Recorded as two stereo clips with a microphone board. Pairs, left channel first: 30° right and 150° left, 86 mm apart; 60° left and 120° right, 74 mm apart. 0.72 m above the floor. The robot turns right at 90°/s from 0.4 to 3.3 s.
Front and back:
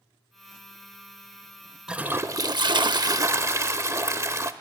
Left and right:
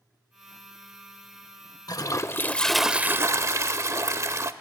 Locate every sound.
1.9 s a toilet flushing: 70° left, 0.6 m; by 4.5 s 160° right, 0.6 m